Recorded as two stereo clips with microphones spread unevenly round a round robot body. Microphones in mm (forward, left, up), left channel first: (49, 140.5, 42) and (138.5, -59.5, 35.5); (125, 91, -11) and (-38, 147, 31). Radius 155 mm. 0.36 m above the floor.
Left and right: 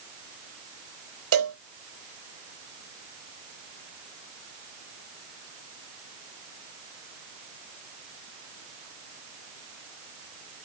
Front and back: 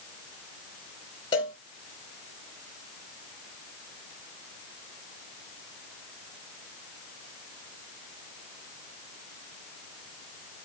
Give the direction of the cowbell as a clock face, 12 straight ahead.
3 o'clock.